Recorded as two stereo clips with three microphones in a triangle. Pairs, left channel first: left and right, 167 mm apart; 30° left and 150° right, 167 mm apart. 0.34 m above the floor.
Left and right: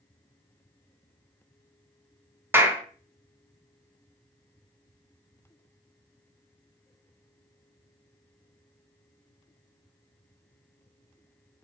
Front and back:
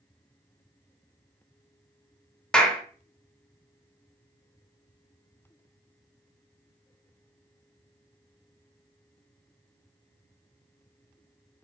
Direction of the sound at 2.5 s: 45° right.